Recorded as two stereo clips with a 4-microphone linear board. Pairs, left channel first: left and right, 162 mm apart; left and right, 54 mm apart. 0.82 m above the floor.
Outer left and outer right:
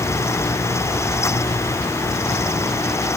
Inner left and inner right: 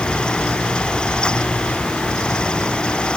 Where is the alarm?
No alarm in this recording.